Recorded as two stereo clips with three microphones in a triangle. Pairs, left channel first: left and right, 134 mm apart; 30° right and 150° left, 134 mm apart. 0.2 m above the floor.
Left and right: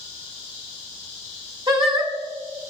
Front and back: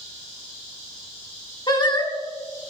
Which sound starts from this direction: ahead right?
Singing, at 1.7 s.